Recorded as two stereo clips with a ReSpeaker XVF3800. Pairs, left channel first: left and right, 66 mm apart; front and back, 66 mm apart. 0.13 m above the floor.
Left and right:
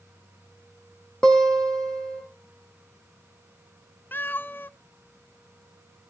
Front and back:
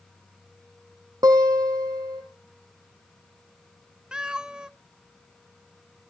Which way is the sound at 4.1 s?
115° left.